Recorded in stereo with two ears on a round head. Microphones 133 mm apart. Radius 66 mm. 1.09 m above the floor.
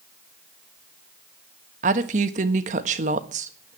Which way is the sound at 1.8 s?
50° right (ahead or behind).